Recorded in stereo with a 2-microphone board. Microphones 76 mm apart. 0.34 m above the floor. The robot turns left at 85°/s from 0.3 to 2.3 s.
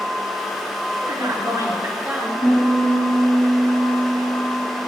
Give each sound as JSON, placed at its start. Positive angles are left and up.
{"t": 1.0, "sound": "a woman speaking", "azimuth_deg": -45, "distance_m": 2.5}
{"t": 2.4, "sound": "a piano", "side_deg": -30, "distance_m": 3.5}